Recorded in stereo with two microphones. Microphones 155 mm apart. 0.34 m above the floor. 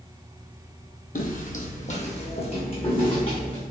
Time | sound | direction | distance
1.1 | footsteps | 65° left (ahead or behind) | 0.6 m